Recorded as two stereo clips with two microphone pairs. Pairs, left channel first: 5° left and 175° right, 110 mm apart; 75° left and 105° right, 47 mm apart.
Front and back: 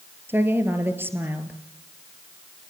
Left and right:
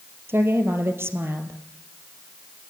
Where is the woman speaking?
110° right, 2.5 m.